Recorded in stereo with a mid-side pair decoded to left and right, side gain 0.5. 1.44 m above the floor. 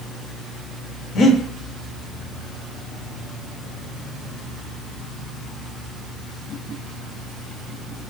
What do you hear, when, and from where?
1.1 s breathing: 65° left, 0.8 m